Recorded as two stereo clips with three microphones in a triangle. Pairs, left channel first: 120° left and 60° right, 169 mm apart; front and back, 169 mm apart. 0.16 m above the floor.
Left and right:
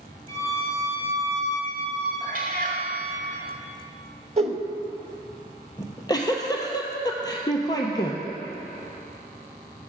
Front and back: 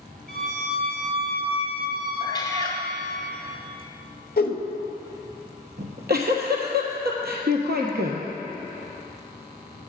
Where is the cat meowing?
60° right, 1.0 m.